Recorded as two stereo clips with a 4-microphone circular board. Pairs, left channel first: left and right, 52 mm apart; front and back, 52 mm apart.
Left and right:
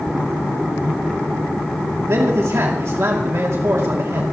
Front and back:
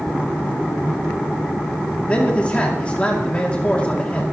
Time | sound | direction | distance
2.1 | a man speaking | 65° right | 2.5 m